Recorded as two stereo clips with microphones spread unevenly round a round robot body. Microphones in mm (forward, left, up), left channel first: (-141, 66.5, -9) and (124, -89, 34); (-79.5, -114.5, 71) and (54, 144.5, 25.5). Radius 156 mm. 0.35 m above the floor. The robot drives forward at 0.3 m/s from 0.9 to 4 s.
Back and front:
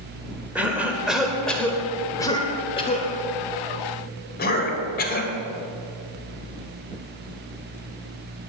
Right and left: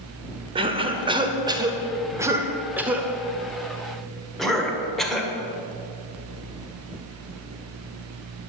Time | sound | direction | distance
0.6 | a cough | 70° left | 1.4 m